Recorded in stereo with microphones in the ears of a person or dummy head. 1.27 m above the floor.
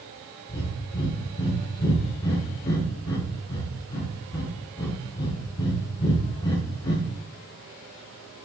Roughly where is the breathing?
Left.